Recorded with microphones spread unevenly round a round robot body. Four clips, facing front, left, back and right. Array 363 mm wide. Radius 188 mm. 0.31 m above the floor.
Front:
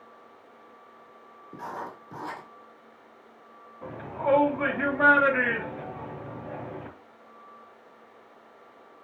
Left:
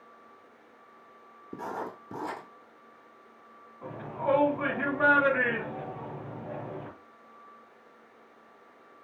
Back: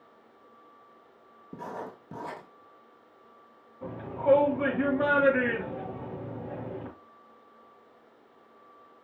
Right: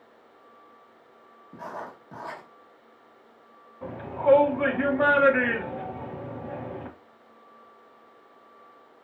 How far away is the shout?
About 2 m.